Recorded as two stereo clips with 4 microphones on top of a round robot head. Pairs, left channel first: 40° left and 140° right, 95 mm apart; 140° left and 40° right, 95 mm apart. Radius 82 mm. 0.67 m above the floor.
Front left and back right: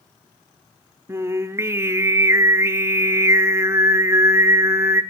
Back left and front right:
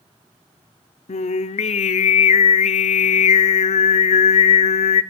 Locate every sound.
1.1 s singing: 155° left, 0.7 m